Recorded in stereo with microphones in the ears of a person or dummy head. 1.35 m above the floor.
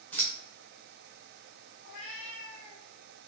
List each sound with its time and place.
0.1 s scissors: 10° left (ahead or behind), 0.7 m
1.8 s a cat meowing: 40° left (ahead or behind), 0.9 m